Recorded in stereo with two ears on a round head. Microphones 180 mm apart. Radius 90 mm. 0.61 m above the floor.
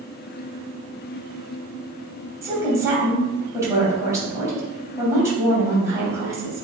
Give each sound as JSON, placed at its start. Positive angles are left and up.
{"t": 2.4, "sound": "a woman speaking", "side_deg": -15, "distance_m": 3.0}